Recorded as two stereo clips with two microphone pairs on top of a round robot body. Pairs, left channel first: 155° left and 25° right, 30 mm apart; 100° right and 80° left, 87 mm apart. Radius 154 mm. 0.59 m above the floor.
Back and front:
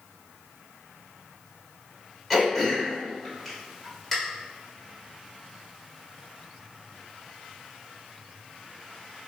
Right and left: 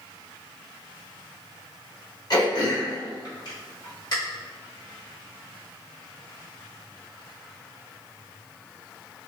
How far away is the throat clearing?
About 1.8 m.